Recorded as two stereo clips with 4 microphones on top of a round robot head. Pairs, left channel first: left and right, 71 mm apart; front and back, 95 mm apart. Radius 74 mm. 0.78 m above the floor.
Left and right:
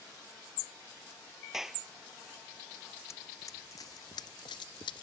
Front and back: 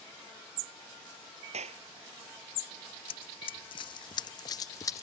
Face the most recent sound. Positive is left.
turn(degrees=55)